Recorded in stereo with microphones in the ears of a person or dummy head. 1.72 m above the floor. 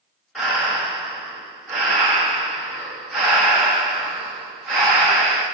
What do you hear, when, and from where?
0.3 s breathing: centre (ahead or behind), 1.3 m